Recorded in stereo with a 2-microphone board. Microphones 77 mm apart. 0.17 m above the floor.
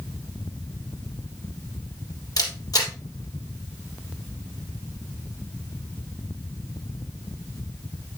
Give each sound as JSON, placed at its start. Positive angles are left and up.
{"t": 2.4, "sound": "a camera shutter", "side_deg": 50, "distance_m": 3.0}